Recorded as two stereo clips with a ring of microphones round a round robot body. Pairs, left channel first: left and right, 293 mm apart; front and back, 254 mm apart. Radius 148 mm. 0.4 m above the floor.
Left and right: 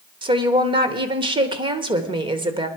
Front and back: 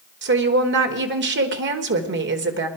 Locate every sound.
0.2 s a woman speaking: 160° right, 1.3 m